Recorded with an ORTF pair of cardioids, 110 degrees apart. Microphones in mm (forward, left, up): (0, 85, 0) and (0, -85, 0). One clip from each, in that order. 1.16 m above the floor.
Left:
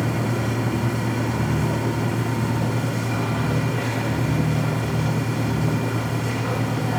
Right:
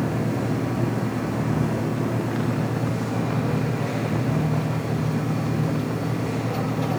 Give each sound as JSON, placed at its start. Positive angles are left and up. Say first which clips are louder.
{"t": 0.0, "sound": "a machine running", "louder": "left 1 dB", "azimuth_deg": 70, "distance_m": 2.5}